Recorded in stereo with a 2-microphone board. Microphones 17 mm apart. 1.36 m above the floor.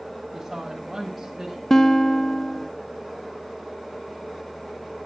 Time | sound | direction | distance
0.3 | a woman speaking | 10° right (ahead or behind) | 9 m
1.7 | a guitar | 25° left (ahead or behind) | 0.6 m